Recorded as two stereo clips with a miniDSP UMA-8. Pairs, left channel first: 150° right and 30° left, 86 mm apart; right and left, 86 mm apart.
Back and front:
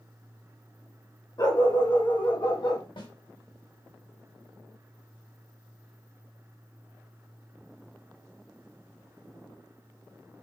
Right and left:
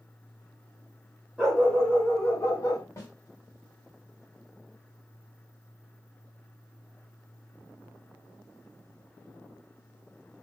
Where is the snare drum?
145° right, 1.5 m.